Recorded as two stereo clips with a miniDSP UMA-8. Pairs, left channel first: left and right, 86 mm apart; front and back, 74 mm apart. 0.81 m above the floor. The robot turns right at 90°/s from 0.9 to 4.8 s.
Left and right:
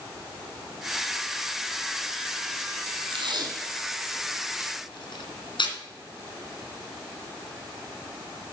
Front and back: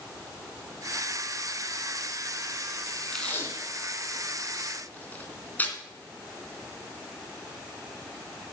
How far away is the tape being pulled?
About 2.5 m.